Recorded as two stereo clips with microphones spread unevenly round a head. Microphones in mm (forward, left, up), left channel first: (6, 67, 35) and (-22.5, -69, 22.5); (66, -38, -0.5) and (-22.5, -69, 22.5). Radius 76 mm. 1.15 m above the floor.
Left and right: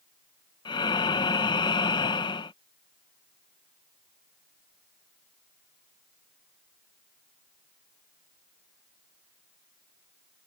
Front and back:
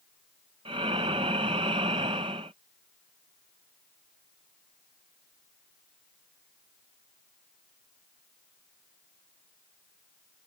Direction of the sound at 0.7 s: 140° left.